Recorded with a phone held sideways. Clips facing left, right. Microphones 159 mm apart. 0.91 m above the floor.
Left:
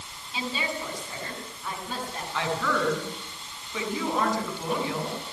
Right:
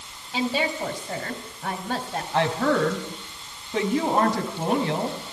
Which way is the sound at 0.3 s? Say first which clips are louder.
Right 7 dB; 70° right (ahead or behind).